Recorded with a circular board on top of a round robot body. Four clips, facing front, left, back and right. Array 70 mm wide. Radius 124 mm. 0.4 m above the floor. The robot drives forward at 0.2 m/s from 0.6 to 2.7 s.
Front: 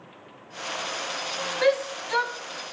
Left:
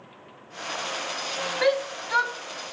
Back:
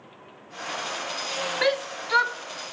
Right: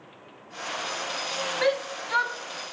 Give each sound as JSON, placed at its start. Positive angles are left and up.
{"t": 1.6, "sound": "a shout", "azimuth_deg": 175, "distance_m": 1.4}